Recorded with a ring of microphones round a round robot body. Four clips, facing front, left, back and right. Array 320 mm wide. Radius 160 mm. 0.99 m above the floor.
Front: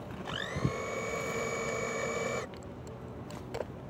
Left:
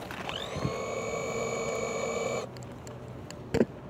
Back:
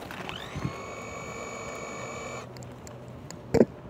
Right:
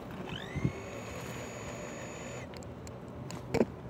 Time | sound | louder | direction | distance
0.2 | a blender | left 4 dB, front 5 dB | 65° left | ?
2.6 | a crack | left 2 dB, back 1 dB | 165° left | ?